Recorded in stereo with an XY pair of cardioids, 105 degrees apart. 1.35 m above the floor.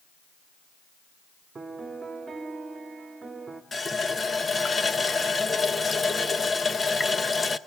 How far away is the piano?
About 2.0 m.